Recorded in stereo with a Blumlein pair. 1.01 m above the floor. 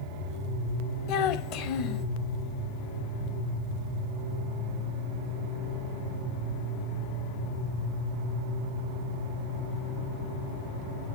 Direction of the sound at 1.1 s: 40° left.